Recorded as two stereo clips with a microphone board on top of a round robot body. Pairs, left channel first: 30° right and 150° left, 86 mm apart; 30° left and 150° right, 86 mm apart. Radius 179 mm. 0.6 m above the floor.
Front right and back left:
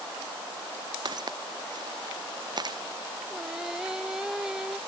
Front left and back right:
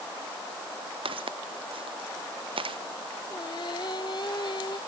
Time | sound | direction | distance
1.1 | footsteps | 165° right | ?
3.3 | singing | 65° left | ?